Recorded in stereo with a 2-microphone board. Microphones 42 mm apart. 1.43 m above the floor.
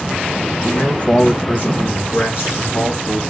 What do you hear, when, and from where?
0.6 s a man speaking: 20° left (ahead or behind), 1.9 m; by 3.2 s 60° left (ahead or behind), 3.5 m